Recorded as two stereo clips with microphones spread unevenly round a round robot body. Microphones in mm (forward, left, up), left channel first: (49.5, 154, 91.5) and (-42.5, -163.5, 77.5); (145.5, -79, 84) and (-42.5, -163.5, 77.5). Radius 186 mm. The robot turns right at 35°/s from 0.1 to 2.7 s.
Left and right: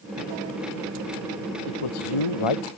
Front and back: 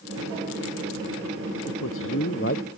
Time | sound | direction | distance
1.7 | a man speaking | 55° left | ?